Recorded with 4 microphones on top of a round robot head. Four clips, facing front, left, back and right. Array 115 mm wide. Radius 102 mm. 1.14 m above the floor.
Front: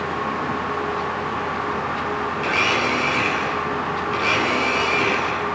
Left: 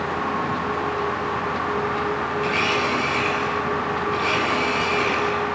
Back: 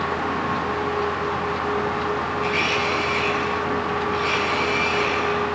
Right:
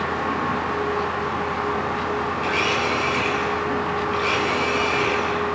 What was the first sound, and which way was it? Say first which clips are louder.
A blender: even, front 1 dB; 10° left.